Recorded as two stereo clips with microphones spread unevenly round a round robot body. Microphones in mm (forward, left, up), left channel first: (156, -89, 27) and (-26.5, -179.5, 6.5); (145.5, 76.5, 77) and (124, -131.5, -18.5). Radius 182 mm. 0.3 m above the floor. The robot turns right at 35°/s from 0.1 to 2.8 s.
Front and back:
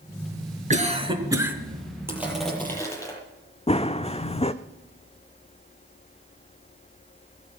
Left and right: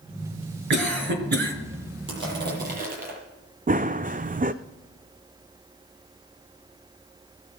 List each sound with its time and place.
0.7 s a cough: 105° right, 3.5 m; by 1.5 s 75° right, 3.5 m
2.1 s crushing: 75° right, 8 m; by 3.2 s 50° right, 8 m
3.7 s running footsteps: 35° right, 1.0 m